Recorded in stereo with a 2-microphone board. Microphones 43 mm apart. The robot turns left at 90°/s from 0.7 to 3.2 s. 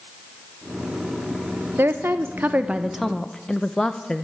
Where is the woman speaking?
65° right, 0.7 m; by 4.2 s 165° left, 0.7 m.